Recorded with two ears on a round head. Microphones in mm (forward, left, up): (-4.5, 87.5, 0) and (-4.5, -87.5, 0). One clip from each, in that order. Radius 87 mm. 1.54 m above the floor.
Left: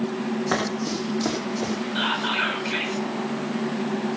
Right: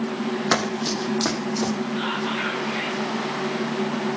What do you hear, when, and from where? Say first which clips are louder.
0.5 s running footsteps: right 4 dB; 50° right (ahead or behind), 4 m; by 1.7 s 35° right (ahead or behind), 4.5 m
1.9 s whispering: left 5 dB; 70° left (ahead or behind), 9 m